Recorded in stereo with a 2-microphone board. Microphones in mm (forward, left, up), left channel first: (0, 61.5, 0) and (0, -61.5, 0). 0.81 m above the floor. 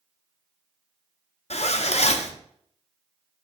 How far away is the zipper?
About 0.5 m.